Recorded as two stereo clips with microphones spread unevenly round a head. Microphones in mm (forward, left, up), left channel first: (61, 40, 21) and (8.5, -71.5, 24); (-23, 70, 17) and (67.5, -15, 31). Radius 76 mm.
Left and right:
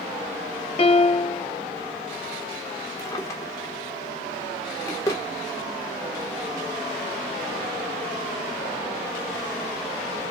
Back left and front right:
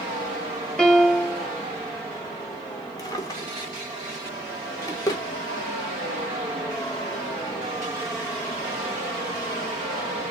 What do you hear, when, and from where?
0.8 s a piano: 45° left, 0.8 m
3.0 s a drawer: 100° left, 1.0 m